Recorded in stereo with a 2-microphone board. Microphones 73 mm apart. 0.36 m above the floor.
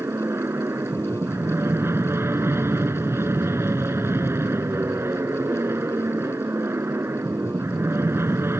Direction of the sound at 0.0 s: 35° right (ahead or behind).